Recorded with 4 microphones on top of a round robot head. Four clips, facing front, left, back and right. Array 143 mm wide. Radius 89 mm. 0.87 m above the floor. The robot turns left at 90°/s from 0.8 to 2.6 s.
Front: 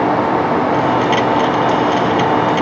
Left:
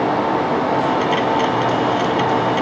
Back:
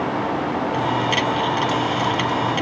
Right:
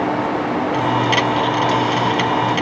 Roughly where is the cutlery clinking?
I don't hear cutlery clinking.